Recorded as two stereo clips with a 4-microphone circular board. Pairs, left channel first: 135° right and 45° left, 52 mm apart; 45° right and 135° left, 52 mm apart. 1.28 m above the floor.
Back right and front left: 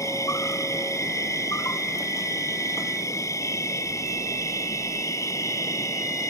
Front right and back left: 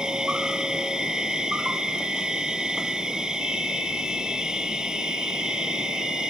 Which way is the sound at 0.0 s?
150° right.